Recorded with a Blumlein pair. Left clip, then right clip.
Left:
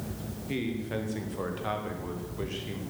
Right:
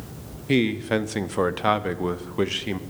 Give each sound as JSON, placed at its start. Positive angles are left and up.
{"t": 0.5, "sound": "a man speaking", "azimuth_deg": -55, "distance_m": 1.0}